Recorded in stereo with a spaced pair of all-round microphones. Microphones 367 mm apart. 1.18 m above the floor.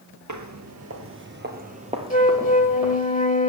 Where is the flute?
20° left (ahead or behind), 1.3 m.